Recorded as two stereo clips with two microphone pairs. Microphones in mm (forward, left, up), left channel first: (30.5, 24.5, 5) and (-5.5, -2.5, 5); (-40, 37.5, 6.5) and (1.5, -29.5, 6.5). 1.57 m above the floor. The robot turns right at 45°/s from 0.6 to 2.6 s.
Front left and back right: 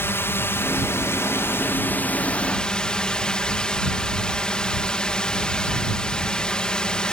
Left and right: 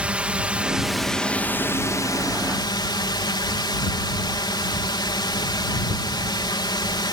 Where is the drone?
15° left; by 7.1 s 105° left.